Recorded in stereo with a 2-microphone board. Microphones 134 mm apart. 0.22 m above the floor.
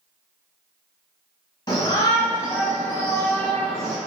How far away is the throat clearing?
No throat clearing in this recording.